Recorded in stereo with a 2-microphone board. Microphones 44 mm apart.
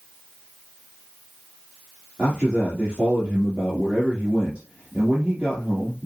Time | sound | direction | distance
2.2 | a man speaking | 25° right (ahead or behind) | 2.5 m